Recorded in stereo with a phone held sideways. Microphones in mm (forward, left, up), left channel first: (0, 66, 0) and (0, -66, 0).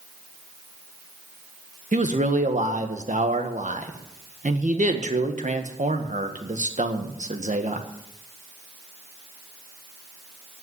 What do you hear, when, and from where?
1.9 s a man speaking: 70° right (ahead or behind), 1.5 m